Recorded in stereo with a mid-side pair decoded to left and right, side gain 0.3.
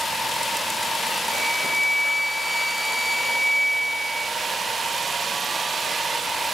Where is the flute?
5° left, 0.9 m.